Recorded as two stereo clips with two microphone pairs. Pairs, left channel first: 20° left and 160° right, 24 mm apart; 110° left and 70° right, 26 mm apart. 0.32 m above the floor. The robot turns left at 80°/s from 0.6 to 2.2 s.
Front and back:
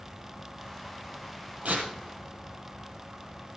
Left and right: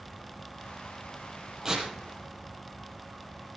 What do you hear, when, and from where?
1.6 s tearing paper: 140° right, 3 m; by 1.9 s 155° right, 3 m